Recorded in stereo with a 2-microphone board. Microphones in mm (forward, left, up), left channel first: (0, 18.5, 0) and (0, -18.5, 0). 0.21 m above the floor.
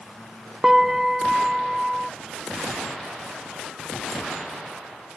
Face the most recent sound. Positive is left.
turn(degrees=-10)  # may be behind; listen again after turning